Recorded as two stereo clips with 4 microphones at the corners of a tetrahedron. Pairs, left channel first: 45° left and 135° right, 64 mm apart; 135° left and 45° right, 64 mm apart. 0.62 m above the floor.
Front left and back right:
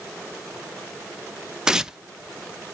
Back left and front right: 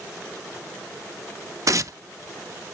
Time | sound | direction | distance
1.7 | tearing paper | 60° right | 0.5 m